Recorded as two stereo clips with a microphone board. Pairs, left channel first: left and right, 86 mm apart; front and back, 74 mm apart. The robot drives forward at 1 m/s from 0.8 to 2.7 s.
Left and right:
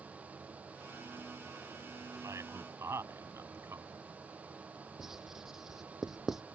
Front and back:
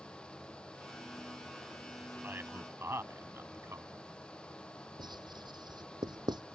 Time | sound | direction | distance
2.2 | a man speaking | 125° right | ?
5.0 | writing | 175° right | ?